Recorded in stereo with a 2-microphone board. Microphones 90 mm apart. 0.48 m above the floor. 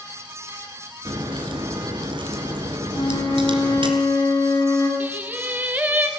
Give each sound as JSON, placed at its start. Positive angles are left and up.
{"t": 1.1, "sound": "a crack", "side_deg": -65, "distance_m": 2.5}
{"t": 2.9, "sound": "a flute", "side_deg": 55, "distance_m": 4.0}
{"t": 5.0, "sound": "singing", "side_deg": -20, "distance_m": 1.3}